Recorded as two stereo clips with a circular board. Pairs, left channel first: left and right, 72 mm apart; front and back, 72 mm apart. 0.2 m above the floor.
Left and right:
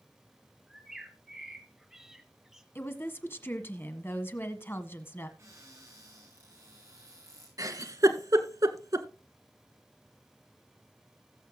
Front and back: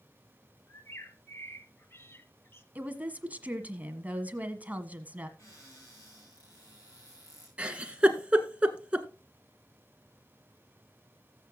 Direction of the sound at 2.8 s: 125° left.